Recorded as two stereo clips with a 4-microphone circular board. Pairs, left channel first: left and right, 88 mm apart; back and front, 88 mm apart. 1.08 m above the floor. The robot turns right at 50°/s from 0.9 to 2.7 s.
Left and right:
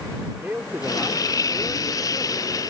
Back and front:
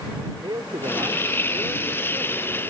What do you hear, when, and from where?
0.4 s a man speaking: 20° right; by 2.5 s 60° left